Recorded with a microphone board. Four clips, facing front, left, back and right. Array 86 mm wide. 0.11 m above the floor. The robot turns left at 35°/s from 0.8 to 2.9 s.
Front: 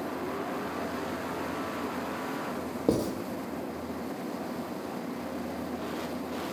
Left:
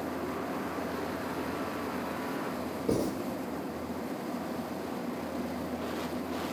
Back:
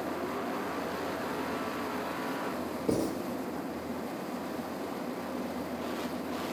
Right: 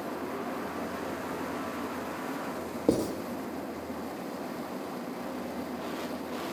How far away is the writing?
About 0.7 m.